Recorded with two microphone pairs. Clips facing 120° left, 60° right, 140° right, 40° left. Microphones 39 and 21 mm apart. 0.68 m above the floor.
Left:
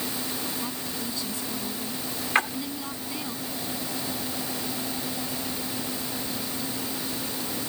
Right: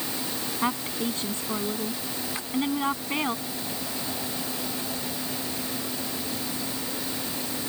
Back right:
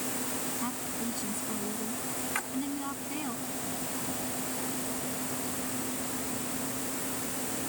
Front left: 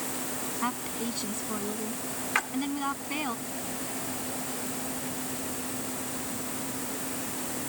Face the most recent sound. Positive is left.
turn(degrees=105)